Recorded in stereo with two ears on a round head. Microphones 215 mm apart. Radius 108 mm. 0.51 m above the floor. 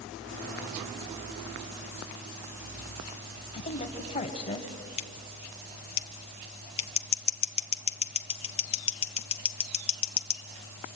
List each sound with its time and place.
3.5 s a woman speaking: 25° left (ahead or behind), 2 m
5.0 s scissors: 25° left (ahead or behind), 0.9 m